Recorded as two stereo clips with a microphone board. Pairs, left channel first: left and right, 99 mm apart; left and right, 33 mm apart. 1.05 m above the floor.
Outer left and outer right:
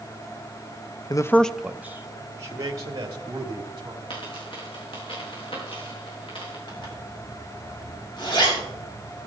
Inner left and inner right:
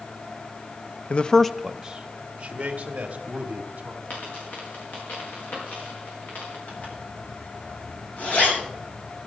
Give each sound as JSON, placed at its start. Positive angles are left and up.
{"t": 1.1, "sound": "a man speaking", "side_deg": 45, "distance_m": 0.6}
{"t": 4.1, "sound": "a dropped coin", "side_deg": 70, "distance_m": 5.5}
{"t": 6.7, "sound": "a zipper", "side_deg": 55, "distance_m": 6.0}